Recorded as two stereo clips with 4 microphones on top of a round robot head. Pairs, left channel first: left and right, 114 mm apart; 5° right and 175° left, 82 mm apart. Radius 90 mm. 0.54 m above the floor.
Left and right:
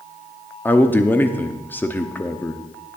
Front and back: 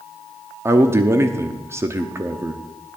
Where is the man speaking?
150° left, 0.9 m.